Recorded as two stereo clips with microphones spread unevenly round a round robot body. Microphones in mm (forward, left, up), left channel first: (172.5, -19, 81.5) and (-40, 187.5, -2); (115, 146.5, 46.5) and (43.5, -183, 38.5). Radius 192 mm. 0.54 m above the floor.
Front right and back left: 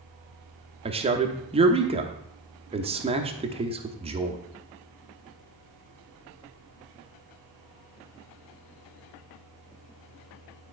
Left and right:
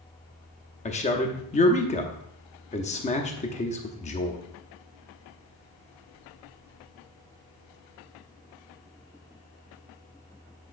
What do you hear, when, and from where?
0.8 s a man speaking: 135° left, 0.8 m